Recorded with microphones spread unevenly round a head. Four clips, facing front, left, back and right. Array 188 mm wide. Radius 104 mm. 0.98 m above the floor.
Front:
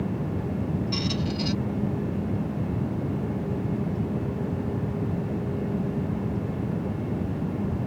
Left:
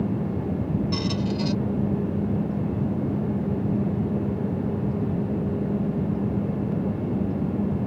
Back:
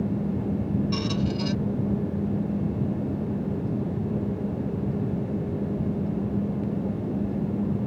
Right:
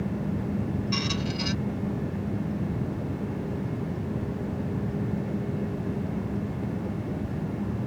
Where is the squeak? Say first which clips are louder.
Left 4 dB, back 2 dB; 130° left.